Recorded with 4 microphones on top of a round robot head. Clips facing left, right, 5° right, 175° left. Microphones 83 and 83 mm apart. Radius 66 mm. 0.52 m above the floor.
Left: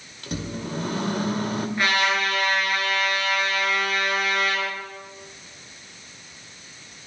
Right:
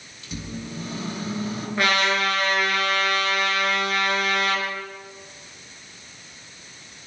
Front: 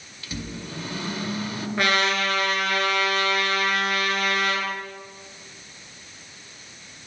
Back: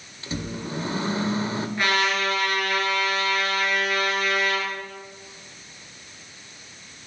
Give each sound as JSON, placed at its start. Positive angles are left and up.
{"t": 0.2, "sound": "a microwave", "azimuth_deg": 115, "distance_m": 1.9}
{"t": 1.8, "sound": "a trumpet", "azimuth_deg": -50, "distance_m": 4.0}